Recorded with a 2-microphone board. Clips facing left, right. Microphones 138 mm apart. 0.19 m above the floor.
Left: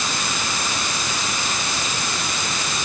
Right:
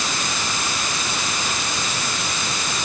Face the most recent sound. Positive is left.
No sound to turn to.